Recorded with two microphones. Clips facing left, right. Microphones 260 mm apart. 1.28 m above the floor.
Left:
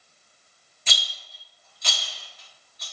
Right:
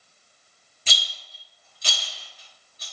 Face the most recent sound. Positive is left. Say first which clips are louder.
# even
turn(degrees=-35)  # may be behind; listen again after turning